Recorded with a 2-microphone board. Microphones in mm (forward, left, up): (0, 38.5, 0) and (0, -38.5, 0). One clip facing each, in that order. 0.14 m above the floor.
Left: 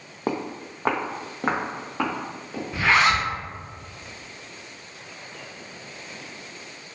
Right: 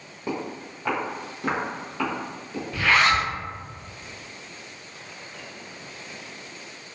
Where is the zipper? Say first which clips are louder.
Left 1 dB; 20° left (ahead or behind), 0.6 m.